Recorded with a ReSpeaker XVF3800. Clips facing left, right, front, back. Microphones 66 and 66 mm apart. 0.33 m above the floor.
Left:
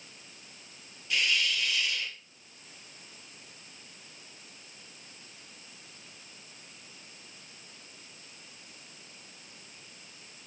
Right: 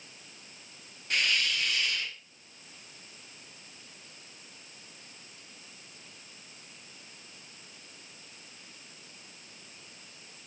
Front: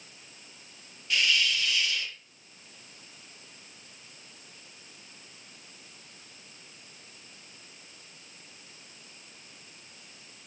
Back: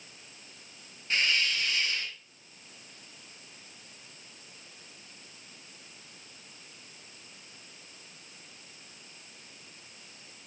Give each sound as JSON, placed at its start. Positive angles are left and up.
{"t": 1.1, "sound": "a hiss", "azimuth_deg": -130, "distance_m": 2.0}